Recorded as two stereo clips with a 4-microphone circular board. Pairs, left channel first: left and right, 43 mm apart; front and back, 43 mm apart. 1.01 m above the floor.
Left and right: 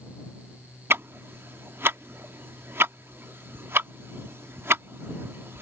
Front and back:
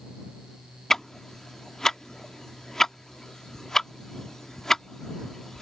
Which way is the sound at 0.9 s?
75° right.